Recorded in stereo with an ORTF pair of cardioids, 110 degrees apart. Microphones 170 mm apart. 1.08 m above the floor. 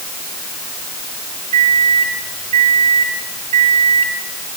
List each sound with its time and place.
1.5 s a microwave: 40° right, 7.5 m